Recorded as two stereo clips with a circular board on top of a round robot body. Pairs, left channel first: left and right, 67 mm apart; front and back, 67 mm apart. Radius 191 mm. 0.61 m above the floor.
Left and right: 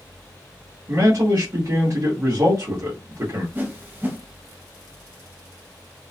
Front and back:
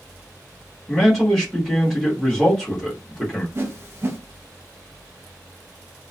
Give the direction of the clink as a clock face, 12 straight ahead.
I don't hear a clink.